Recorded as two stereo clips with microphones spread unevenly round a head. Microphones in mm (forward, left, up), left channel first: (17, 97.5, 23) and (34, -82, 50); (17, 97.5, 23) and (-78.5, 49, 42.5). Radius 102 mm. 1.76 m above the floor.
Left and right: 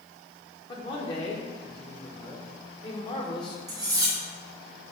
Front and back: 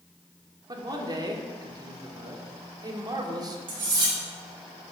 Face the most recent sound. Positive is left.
turn(degrees=-150)